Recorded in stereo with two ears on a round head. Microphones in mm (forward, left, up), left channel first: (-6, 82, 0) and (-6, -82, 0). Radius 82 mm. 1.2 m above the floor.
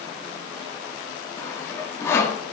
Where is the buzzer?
No buzzer in this recording.